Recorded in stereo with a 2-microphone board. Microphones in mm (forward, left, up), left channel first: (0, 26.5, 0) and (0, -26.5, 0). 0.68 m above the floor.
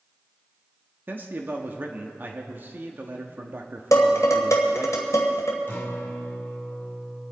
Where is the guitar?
45° left (ahead or behind), 2 m.